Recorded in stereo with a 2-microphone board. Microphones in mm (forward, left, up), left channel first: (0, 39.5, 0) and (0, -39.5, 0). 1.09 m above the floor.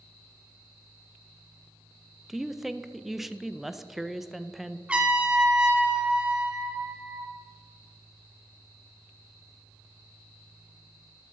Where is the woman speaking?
5° right (ahead or behind), 0.5 m.